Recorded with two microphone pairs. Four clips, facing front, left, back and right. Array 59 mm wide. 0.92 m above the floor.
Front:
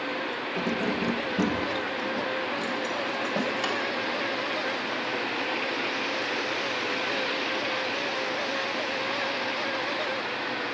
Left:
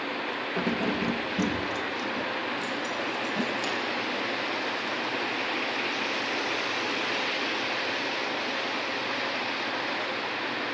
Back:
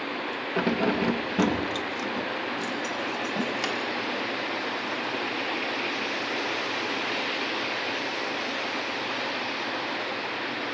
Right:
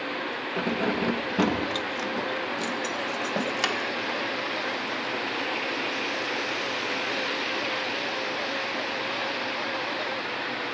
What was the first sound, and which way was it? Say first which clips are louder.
Keys jangling: right 2 dB, back 4 dB; 160° right.